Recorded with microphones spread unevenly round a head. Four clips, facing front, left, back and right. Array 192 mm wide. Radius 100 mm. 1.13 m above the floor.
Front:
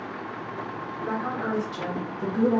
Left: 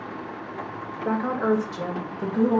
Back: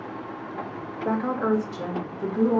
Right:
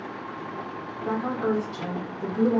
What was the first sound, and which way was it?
A woman speaking, 120° left.